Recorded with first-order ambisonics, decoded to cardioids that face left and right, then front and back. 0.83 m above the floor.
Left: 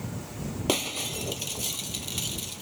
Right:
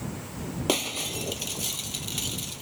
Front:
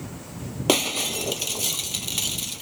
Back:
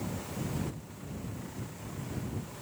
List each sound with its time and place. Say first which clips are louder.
0.7 s breaking glass: right 1 dB, front 24 dB; straight ahead